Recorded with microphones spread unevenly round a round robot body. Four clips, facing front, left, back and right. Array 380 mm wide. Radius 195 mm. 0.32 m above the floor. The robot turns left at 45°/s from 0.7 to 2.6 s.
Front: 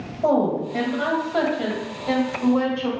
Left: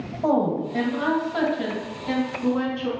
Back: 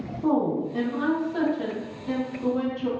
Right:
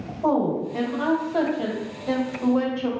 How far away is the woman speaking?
About 1.4 m.